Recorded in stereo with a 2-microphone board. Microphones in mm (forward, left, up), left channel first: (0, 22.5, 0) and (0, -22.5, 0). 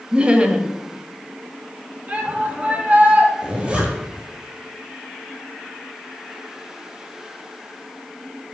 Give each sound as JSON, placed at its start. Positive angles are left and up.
{"t": 0.1, "sound": "laughter", "side_deg": -25, "distance_m": 1.0}
{"t": 2.1, "sound": "a shout", "side_deg": -30, "distance_m": 2.5}
{"t": 3.4, "sound": "a zipper", "side_deg": -25, "distance_m": 2.0}